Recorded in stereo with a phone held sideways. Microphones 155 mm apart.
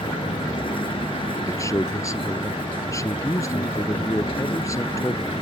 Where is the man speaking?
20° left (ahead or behind).